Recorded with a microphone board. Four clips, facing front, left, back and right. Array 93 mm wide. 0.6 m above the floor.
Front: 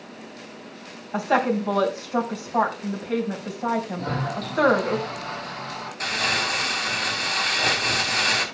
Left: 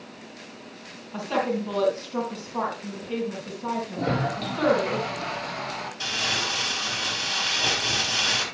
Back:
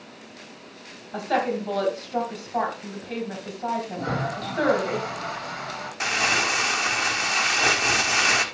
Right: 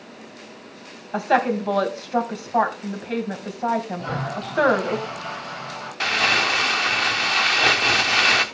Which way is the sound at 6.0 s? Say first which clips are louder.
Right 10 dB, back 2 dB; 110° right.